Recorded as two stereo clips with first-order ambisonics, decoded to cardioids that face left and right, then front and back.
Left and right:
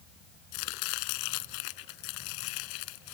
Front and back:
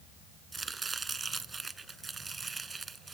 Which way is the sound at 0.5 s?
105° left.